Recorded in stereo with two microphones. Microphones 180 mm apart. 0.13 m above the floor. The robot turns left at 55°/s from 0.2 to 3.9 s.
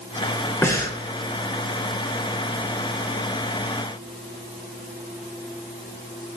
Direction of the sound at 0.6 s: 15° left (ahead or behind).